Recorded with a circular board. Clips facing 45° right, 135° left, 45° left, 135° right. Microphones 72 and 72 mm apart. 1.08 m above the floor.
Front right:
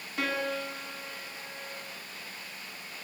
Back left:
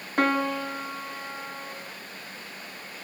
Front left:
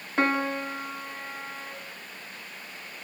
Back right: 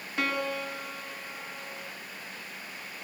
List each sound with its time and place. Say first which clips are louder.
0.2 s a piano: back left 7 dB, front left 5 dB; 100° left, 3.5 m